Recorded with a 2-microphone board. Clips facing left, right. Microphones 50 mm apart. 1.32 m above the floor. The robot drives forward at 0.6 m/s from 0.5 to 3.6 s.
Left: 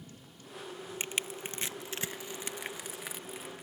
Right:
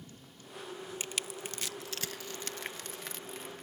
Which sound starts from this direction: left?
Crushing, at 1.0 s.